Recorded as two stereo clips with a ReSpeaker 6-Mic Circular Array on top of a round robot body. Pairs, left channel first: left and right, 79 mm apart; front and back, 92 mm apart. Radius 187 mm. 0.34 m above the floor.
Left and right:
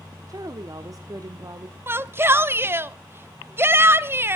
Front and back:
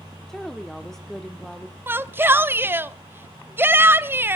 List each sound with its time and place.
0.3 s a woman speaking: 85° right, 1.5 m
1.9 s a shout: 130° right, 1.1 m